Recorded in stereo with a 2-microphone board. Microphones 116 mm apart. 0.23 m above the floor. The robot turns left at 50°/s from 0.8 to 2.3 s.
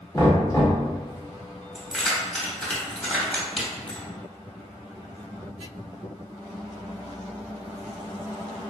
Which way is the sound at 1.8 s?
Centre (ahead or behind).